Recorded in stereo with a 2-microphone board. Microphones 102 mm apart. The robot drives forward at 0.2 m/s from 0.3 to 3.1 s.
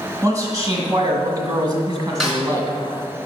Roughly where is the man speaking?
Right.